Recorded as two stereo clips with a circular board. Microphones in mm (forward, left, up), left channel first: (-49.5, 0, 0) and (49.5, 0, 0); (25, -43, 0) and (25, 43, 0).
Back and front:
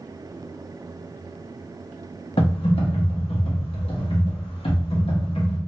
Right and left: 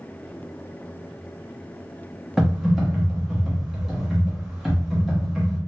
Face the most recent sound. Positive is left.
turn(degrees=180)